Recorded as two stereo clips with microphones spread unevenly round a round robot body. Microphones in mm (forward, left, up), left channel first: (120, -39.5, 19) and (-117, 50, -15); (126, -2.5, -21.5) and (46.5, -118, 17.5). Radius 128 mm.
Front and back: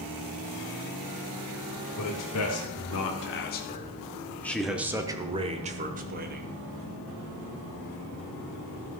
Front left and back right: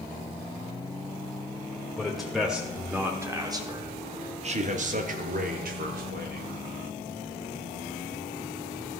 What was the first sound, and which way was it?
A man speaking, 20° right.